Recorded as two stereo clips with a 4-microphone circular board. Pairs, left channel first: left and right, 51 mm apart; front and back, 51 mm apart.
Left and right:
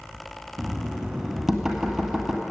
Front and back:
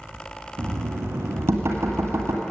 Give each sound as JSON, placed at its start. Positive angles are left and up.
{"t": 0.6, "sound": "knocking", "azimuth_deg": -170, "distance_m": 1.5}